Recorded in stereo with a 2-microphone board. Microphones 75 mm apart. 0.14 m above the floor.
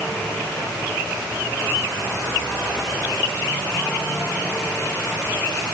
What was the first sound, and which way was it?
Only background noise.